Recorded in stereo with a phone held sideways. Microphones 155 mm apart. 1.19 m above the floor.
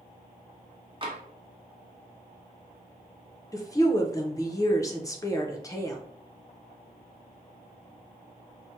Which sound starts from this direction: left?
A woman speaking, at 3.5 s.